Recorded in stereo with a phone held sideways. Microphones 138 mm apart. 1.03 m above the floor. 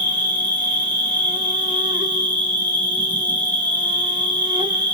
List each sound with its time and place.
0.0 s an insect: 35° right (ahead or behind), 0.9 m